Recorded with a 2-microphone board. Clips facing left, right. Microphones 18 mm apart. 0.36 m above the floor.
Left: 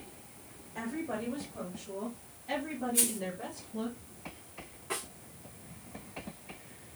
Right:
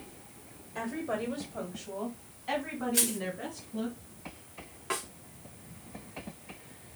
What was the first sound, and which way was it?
A woman speaking, 20° right (ahead or behind).